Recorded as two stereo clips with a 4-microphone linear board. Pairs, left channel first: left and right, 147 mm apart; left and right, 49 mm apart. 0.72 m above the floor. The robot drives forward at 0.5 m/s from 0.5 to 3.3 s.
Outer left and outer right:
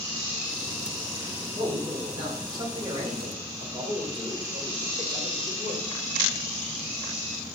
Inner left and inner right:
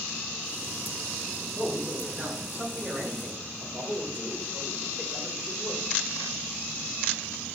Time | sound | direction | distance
1.6 | a man speaking | 35° right (ahead or behind) | 2 m